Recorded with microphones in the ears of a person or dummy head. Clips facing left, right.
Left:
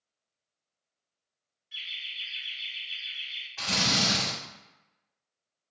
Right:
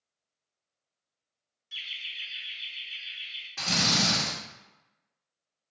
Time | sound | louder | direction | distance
1.7 | laughter | even | 55° right (ahead or behind) | 0.7 m
3.6 | a drill | right 1 dB | 50° right (ahead or behind) | 1.4 m